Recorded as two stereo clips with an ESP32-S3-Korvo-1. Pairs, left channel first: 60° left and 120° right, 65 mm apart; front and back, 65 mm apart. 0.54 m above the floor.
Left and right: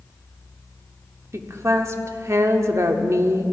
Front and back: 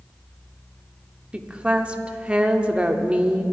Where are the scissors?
I don't hear scissors.